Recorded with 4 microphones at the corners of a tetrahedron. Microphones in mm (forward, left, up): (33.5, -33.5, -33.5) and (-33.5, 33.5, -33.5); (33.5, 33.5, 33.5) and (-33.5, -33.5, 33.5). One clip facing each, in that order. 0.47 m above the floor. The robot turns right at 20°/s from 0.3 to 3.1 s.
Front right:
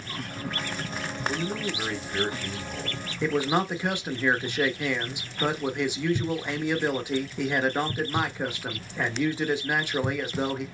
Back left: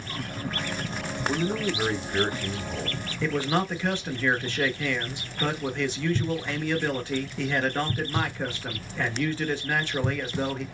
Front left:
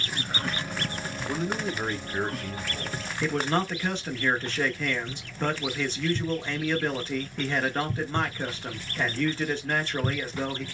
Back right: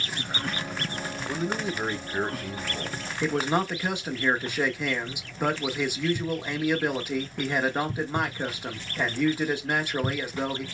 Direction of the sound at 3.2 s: 85° right.